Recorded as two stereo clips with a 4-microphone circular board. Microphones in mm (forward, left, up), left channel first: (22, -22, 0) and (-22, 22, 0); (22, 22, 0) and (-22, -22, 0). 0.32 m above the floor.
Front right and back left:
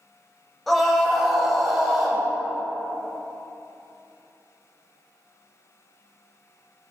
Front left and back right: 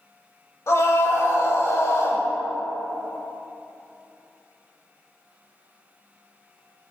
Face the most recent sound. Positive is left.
turn(degrees=45)